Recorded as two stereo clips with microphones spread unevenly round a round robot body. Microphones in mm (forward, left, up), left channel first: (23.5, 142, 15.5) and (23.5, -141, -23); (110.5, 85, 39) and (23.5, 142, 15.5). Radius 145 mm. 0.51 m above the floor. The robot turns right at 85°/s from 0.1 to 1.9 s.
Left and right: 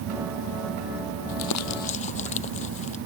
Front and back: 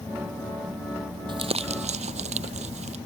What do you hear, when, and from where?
1.3 s crumpling: 105° left; by 3.0 s 155° left